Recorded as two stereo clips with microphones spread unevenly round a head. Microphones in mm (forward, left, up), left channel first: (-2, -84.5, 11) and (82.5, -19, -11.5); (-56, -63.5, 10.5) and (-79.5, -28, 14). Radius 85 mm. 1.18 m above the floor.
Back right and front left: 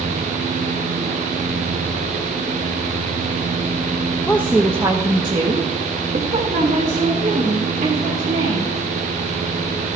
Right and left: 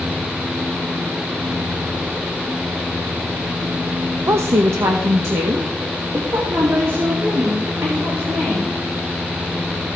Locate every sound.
4.3 s a woman speaking: 135° left, 0.6 m; by 8.8 s 70° left, 3 m